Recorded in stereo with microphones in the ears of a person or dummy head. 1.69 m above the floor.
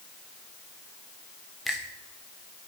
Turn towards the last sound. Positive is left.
turn(degrees=0)  # may be behind; listen again after turning